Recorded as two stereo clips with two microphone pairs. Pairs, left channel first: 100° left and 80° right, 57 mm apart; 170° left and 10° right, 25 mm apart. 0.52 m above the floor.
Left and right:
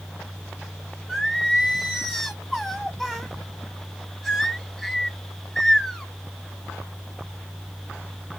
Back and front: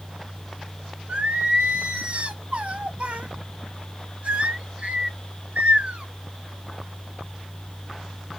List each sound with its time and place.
1.1 s singing: 10° left, 1.1 m